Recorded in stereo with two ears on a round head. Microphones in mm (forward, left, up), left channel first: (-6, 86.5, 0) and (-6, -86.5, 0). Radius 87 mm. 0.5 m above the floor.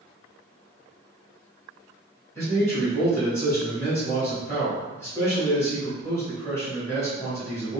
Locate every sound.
2.4 s a man speaking: 15° left (ahead or behind), 1.6 m